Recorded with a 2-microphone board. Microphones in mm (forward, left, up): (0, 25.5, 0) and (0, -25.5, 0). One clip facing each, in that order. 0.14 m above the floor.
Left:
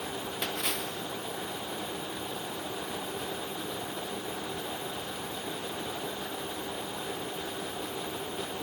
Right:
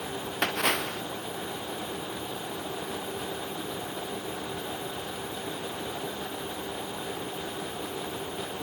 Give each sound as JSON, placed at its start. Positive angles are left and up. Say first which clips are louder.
{"t": 0.4, "sound": "a splash", "louder": "right 9 dB", "side_deg": -65}